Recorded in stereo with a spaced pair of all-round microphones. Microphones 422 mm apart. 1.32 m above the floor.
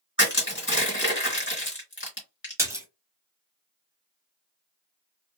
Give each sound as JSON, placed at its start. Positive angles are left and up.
{"t": 0.2, "sound": "crushing", "side_deg": 30, "distance_m": 1.7}
{"t": 2.6, "sound": "a splash", "side_deg": -5, "distance_m": 1.1}